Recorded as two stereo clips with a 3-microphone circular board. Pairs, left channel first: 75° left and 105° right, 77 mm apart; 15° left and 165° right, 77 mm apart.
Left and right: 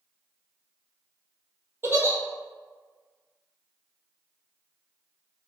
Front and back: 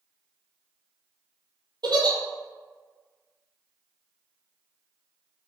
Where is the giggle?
160° right, 0.7 m.